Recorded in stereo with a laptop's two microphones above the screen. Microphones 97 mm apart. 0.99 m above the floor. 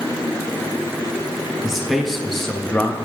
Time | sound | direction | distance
1.6 | a man speaking | 5° right (ahead or behind) | 1.4 m